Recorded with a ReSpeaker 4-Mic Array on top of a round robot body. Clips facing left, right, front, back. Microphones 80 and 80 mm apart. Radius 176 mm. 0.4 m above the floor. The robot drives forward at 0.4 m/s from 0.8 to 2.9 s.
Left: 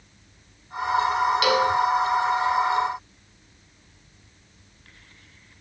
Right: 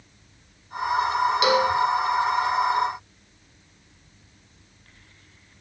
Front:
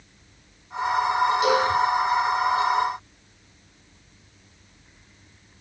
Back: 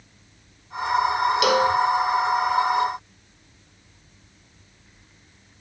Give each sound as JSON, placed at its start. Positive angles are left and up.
{"t": 1.4, "sound": "a cowbell", "azimuth_deg": -160, "distance_m": 1.2}